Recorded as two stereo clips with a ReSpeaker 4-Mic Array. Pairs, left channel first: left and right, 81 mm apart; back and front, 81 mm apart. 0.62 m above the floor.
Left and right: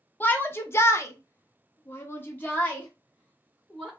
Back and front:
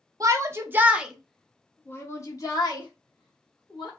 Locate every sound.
0.2 s a shout: 30° left, 0.8 m; by 3.9 s 165° left, 1.6 m